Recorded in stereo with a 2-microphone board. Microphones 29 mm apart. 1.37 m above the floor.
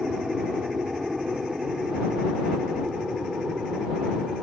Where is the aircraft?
25° right (ahead or behind); by 4.4 s 20° right (ahead or behind).